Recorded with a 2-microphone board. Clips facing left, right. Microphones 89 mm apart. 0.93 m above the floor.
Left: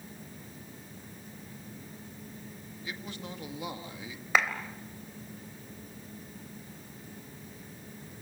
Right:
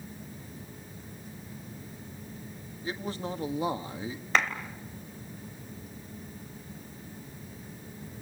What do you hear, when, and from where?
2.8 s a man speaking: 35° right (ahead or behind), 1.8 m
4.3 s a clap: 5° left (ahead or behind), 3 m